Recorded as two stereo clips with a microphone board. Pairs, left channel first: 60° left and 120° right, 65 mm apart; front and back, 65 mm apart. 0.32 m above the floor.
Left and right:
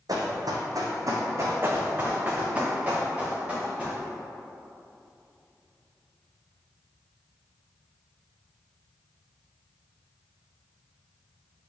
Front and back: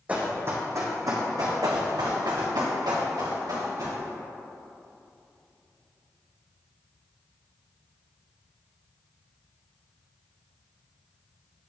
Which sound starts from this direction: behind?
Running footsteps, at 1.6 s.